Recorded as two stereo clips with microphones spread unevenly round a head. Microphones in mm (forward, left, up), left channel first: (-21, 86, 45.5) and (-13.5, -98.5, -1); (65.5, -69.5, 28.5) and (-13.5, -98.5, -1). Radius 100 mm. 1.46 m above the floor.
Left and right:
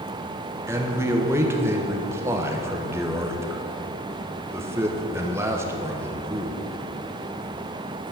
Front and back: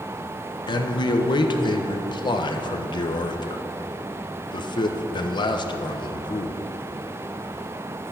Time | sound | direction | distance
0.7 | a man speaking | 10° right | 1.3 m